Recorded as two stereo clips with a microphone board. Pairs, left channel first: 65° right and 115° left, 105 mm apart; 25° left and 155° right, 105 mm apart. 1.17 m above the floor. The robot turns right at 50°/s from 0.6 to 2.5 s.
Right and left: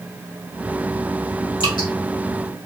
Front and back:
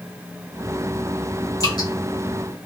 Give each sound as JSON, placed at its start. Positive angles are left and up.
{"t": 1.6, "sound": "dripping", "azimuth_deg": -30, "distance_m": 1.5}